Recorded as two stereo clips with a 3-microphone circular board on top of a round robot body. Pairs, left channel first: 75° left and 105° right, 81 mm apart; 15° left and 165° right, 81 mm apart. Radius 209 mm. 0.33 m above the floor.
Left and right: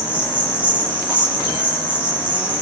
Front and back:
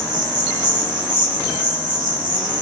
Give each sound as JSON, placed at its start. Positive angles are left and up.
{"t": 0.0, "sound": "an insect", "azimuth_deg": -175, "distance_m": 3.0}